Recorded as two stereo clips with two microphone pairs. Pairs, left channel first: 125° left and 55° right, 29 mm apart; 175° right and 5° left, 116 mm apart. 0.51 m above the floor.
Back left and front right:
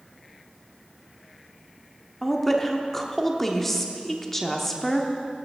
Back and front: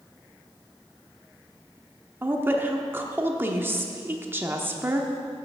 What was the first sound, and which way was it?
A woman speaking, 55° left.